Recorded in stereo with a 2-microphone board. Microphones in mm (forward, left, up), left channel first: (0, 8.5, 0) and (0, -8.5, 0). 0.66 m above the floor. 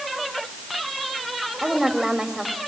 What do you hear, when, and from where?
1.6 s a woman speaking: 20° right (ahead or behind), 2 m